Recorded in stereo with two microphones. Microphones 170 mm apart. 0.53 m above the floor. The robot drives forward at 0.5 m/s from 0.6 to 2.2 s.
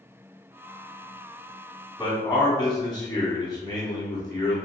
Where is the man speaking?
20° left (ahead or behind), 1.2 m.